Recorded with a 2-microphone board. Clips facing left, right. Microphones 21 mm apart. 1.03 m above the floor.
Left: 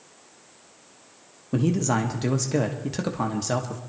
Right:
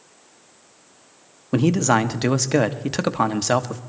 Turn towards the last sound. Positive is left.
turn(degrees=-35)  # may be behind; listen again after turning